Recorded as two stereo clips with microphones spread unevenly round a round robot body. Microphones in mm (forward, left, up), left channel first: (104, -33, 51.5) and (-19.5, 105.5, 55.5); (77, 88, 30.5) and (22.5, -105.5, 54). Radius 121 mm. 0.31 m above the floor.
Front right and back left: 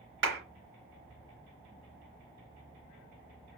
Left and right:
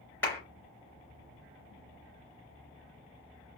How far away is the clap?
About 3.5 m.